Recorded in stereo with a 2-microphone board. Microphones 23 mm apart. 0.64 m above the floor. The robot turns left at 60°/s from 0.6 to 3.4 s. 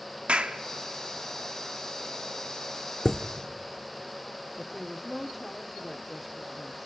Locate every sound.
0.3 s a clap: 55° right (ahead or behind), 0.9 m
3.0 s a chime: 20° left (ahead or behind), 1.1 m; by 3.2 s 25° left (ahead or behind), 1.1 m
4.6 s a woman speaking: 5° right (ahead or behind), 1.3 m